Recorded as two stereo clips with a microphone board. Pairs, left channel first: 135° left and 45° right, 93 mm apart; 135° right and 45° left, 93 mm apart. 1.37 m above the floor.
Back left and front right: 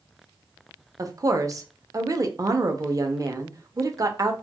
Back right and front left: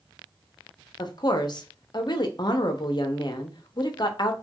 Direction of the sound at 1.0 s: 95° right.